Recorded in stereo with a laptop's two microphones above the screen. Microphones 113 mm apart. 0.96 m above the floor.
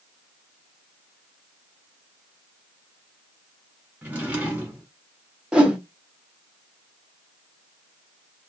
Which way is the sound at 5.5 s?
10° right (ahead or behind).